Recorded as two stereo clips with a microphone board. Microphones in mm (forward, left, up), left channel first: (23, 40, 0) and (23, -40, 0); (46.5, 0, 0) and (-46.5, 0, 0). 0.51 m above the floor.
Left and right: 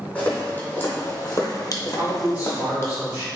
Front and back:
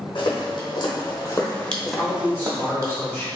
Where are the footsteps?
20° left, 1.4 m; by 2.9 s 140° left, 1.0 m.